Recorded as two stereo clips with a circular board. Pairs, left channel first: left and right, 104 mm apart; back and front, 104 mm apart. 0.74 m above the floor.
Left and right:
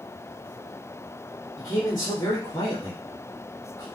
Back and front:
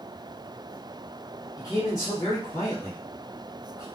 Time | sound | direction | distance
1.6 | a man speaking | 135° left | 1.2 m